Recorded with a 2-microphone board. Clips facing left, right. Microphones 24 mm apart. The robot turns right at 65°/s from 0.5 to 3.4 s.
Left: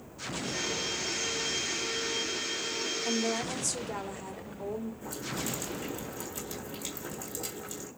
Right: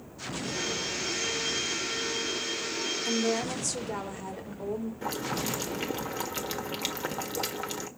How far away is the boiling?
About 1.6 m.